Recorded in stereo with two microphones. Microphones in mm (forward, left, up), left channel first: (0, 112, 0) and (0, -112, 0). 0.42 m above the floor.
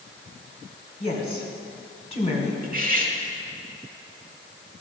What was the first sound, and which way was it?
A woman speaking, 25° left (ahead or behind).